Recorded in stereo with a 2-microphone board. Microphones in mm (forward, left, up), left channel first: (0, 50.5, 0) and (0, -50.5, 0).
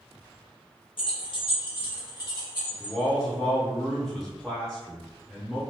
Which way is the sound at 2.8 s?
Centre (ahead or behind).